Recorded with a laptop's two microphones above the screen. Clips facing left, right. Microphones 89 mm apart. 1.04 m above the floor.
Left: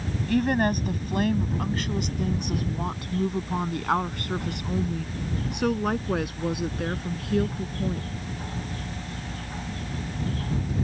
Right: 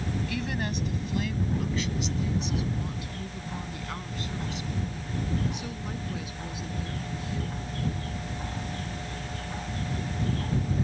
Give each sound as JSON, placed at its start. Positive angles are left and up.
{"t": 0.3, "sound": "a woman speaking", "side_deg": 45}